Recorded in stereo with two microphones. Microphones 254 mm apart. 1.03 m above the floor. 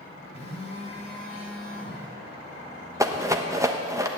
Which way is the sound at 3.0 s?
10° right (ahead or behind).